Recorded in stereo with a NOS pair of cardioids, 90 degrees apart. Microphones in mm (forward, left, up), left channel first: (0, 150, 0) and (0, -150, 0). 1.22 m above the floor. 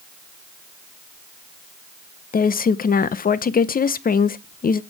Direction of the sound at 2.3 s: 30° left.